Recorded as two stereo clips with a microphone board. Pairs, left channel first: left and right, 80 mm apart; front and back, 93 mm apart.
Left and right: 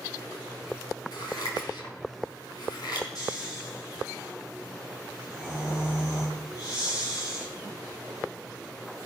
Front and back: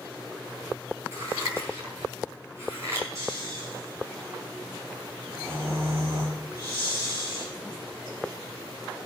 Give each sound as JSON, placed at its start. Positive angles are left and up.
{"t": 1.1, "sound": "scissors", "azimuth_deg": 120, "distance_m": 5.0}
{"t": 3.1, "sound": "snoring", "azimuth_deg": 125, "distance_m": 9.0}